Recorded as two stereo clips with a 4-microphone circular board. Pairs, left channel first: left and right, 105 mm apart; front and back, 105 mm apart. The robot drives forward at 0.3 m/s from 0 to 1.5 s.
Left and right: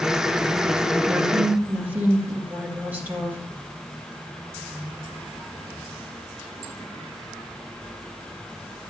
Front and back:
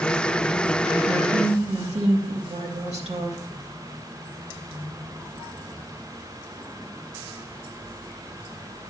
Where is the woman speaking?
160° right, 2 m; by 3.4 s 165° right, 2 m.